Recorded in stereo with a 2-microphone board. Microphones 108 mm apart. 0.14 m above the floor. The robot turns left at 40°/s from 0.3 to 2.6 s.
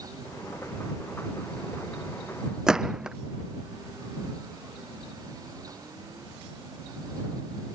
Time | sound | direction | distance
2.7 | a gunshot | 5° right (ahead or behind) | ?